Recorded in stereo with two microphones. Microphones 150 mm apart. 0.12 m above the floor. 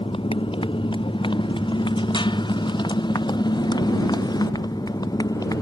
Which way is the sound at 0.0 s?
35° left (ahead or behind).